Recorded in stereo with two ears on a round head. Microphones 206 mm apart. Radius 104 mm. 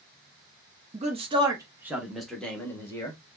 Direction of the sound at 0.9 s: 30° right (ahead or behind).